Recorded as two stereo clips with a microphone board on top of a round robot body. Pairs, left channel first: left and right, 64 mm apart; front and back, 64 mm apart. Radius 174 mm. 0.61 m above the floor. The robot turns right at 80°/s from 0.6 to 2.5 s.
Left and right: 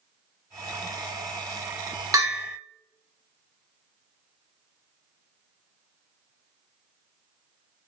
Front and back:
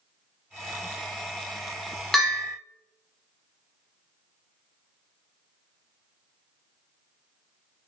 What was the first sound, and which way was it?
A bell, 85° right.